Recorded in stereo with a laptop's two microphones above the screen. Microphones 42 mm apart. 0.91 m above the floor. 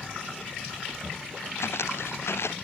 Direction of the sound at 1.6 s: 85° left.